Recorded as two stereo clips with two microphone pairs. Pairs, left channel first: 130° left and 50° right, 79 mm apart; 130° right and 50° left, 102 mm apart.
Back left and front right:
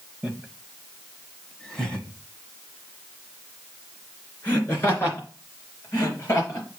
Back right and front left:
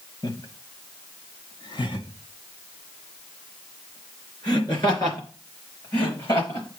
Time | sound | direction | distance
0.2 | laughter | 125° right | 1.2 m